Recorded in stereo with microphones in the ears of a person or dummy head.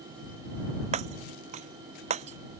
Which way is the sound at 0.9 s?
45° right (ahead or behind).